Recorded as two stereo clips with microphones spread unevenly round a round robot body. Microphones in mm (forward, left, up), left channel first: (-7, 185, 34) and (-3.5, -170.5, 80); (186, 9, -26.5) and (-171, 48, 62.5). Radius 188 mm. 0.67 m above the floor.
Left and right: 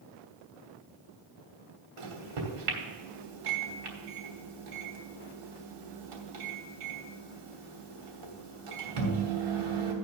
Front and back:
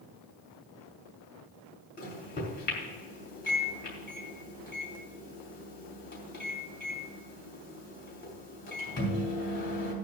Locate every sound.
2.0 s a microwave: 75° right, 3 m